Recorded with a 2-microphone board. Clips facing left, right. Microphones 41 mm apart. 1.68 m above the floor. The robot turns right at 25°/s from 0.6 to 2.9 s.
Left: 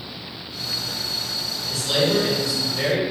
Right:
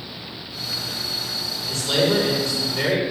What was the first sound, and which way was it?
A man speaking, 130° right.